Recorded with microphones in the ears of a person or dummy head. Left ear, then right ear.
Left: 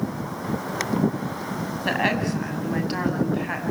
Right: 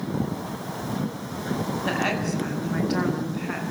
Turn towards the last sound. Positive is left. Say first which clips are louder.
# left 4 dB
turn(degrees=25)  # may be behind; listen again after turning